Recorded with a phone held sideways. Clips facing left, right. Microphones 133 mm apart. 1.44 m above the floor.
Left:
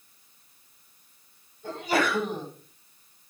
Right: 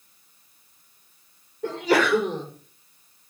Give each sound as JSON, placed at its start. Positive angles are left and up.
{"t": 1.6, "sound": "a sneeze", "side_deg": -85, "distance_m": 5.5}